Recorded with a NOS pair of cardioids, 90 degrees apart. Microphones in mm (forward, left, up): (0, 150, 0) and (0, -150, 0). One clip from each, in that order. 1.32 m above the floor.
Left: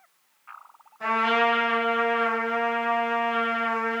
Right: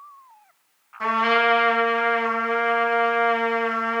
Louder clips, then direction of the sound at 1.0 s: Right 3 dB; 60° right.